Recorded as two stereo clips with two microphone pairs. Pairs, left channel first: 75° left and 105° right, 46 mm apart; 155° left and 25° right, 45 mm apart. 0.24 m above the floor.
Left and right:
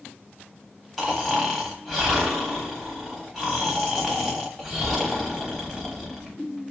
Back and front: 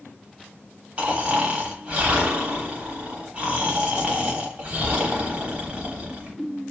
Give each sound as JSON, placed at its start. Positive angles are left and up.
{"t": 1.0, "sound": "snoring", "azimuth_deg": -5, "distance_m": 1.1}